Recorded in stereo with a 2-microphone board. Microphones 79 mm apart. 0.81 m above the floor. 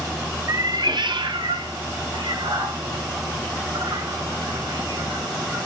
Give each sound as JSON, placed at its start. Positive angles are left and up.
{"t": 0.5, "sound": "a cat meowing", "side_deg": -45, "distance_m": 0.6}